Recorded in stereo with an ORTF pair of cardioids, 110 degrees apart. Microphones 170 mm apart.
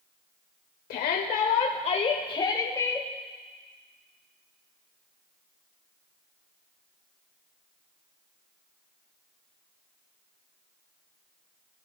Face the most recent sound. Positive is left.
turn(degrees=15)